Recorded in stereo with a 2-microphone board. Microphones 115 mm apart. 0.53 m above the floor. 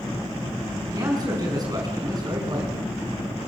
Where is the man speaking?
35° right (ahead or behind), 6.5 m.